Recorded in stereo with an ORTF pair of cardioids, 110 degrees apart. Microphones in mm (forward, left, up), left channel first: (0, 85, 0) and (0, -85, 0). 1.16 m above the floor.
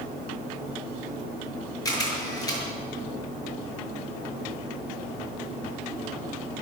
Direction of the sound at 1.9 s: 25° left.